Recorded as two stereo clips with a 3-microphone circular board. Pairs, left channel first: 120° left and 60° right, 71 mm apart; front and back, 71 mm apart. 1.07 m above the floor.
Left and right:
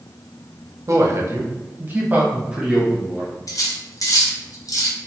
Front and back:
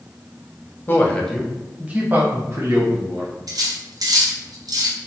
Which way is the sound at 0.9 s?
45° right.